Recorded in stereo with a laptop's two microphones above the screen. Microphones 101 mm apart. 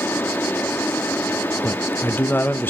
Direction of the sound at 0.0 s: 20° left (ahead or behind).